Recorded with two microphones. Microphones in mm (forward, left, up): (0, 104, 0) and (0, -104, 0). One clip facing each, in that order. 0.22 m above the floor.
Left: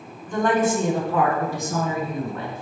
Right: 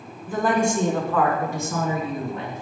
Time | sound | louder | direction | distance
0.3 | a woman speaking | left 1 dB | 10° right (ahead or behind) | 2.5 m